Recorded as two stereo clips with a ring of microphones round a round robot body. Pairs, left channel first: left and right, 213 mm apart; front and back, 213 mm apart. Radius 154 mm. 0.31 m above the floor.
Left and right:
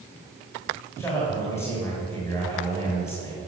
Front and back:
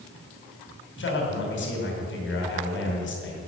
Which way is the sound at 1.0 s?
10° left.